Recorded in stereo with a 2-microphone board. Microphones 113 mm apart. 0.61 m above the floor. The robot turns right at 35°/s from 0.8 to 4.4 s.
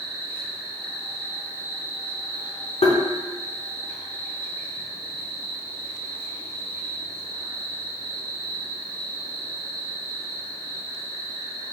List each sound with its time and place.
0.0 s an insect: 5° right, 1.8 m; by 11.7 s 120° left, 1.8 m
2.8 s tapping: 70° left (ahead or behind), 0.6 m; by 3.0 s 65° left (ahead or behind), 0.6 m